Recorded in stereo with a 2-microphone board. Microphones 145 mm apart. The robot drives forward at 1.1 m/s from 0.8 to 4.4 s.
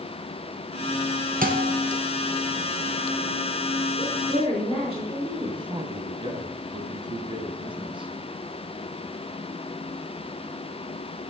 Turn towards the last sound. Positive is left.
turn(degrees=-35)  # may be behind; listen again after turning